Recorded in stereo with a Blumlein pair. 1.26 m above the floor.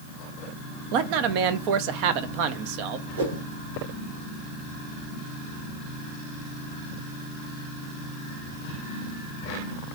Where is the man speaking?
45° right, 0.6 m.